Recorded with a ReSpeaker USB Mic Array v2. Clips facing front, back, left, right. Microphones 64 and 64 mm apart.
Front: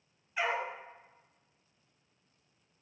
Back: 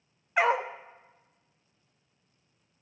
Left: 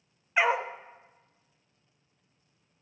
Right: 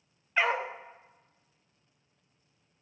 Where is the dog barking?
165° left, 0.5 m.